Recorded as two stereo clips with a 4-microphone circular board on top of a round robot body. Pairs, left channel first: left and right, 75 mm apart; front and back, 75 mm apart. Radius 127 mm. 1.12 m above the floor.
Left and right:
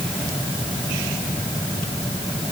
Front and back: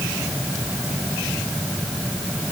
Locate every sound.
Only background noise.